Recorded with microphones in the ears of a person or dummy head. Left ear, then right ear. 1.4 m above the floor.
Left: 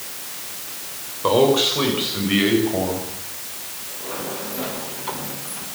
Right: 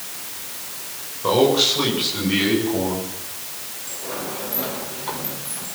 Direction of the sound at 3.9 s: Centre (ahead or behind).